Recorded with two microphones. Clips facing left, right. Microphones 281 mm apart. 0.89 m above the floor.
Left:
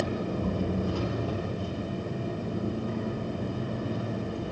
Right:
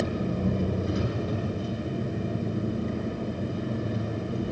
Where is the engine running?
20° right (ahead or behind), 4 m.